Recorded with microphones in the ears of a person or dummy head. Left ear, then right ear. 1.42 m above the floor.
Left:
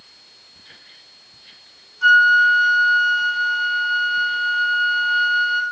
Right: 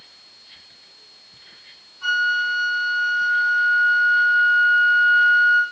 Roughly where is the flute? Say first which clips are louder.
Left 8 dB; left.